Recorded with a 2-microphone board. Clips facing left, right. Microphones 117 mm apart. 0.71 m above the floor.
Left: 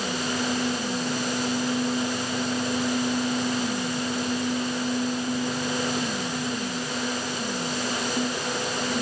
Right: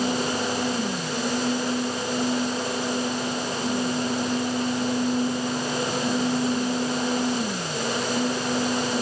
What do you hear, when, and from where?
Only background noise.